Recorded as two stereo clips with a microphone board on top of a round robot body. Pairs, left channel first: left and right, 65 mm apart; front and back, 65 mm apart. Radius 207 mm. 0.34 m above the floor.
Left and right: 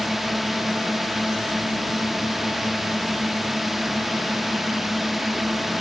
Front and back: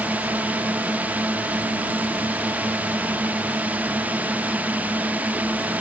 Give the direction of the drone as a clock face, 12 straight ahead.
6 o'clock.